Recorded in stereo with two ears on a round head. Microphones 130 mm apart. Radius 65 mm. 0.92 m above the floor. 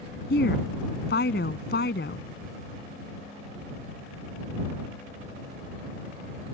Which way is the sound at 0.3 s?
75° left (ahead or behind).